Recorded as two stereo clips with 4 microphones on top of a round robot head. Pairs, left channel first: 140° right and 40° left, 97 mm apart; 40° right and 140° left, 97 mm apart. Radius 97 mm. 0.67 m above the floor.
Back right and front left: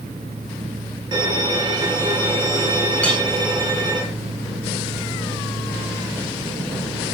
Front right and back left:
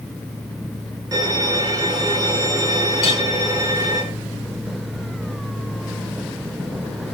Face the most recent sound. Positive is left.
turn(degrees=-60)